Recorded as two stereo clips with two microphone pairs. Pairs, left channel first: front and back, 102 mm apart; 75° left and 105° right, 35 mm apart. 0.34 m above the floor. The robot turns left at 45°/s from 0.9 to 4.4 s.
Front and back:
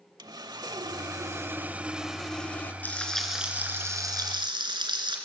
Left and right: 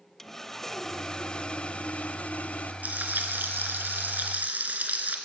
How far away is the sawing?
About 0.8 m.